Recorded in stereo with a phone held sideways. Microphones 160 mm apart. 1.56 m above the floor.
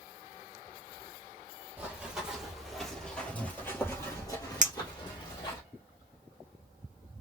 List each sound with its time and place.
1.8 s running footsteps: 10° right (ahead or behind), 1.9 m; by 5.6 s 30° left (ahead or behind), 2 m
4.6 s a clink: 50° right (ahead or behind), 0.7 m